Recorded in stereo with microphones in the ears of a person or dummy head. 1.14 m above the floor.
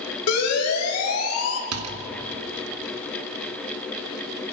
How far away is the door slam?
About 1.5 m.